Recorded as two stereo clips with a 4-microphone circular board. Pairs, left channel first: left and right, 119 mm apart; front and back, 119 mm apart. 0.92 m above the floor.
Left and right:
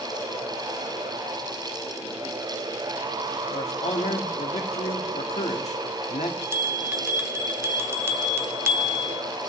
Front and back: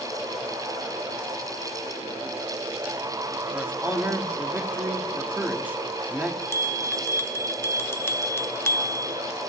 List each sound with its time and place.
3.5 s a man speaking: 105° left, 1.4 m
6.4 s a bell: 45° right, 0.7 m